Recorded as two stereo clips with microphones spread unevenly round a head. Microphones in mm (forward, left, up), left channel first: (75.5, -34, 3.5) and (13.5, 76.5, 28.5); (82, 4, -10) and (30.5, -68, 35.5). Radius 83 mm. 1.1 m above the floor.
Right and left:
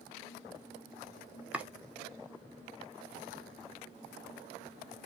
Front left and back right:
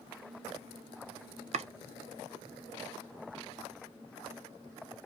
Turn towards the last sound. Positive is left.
turn(degrees=-150)